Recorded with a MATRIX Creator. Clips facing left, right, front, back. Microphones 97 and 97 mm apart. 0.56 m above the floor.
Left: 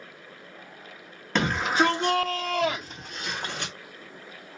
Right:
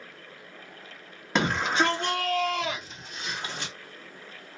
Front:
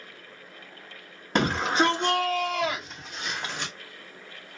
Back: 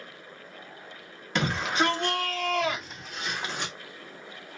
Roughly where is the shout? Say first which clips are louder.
Left 1 dB, front 3 dB; ahead.